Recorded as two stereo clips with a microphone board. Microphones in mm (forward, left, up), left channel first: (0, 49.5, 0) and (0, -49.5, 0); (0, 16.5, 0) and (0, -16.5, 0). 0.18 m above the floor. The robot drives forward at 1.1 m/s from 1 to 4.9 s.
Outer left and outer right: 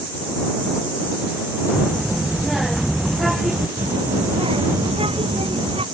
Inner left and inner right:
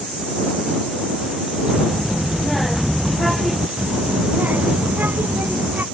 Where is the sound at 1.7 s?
Centre (ahead or behind).